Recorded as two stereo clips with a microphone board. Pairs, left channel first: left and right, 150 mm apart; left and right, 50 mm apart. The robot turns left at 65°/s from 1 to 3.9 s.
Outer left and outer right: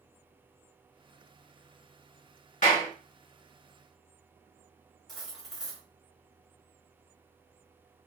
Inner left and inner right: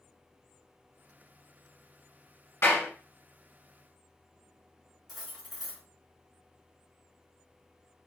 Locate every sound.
2.6 s a clap: 60° left (ahead or behind), 2.0 m
5.1 s cutlery clinking: centre (ahead or behind), 2.0 m